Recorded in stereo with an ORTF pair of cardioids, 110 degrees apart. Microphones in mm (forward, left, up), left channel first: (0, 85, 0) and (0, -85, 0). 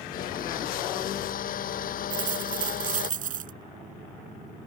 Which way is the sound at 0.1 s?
60° left.